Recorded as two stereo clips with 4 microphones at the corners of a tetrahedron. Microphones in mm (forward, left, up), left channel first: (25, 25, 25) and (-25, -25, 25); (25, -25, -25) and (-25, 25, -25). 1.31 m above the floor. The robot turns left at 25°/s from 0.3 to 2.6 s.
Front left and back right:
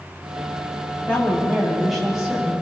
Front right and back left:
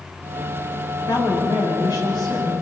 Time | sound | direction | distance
1.1 | a woman speaking | 25° right | 9 m